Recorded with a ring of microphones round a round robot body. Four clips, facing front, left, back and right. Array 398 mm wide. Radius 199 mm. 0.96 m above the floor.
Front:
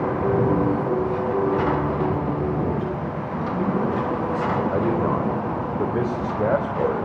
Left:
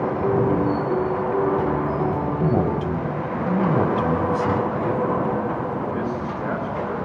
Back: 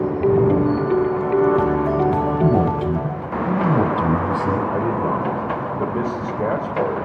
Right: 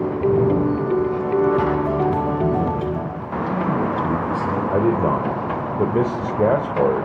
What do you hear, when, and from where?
2.4 s a man speaking: 155° left, 6.5 m
4.7 s a man speaking: 85° right, 3 m